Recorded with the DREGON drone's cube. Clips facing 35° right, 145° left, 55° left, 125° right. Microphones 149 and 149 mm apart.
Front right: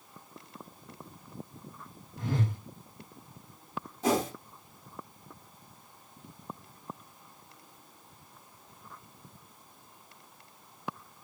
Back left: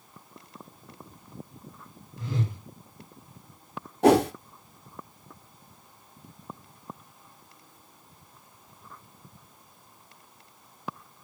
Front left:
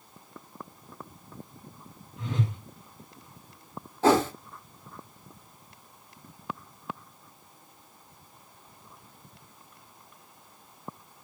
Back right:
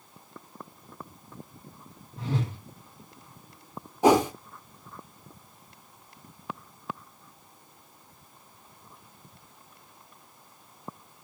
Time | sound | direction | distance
2.2 | a whoosh | 70° right | 5 m
4.0 | a whoosh | 160° left | 1.0 m